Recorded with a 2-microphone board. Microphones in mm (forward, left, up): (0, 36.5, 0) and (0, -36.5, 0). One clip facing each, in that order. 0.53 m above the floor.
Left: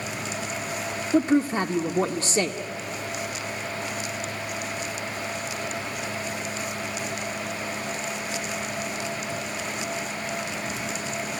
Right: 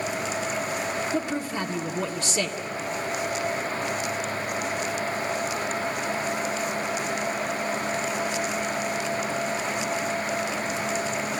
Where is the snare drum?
No snare drum in this recording.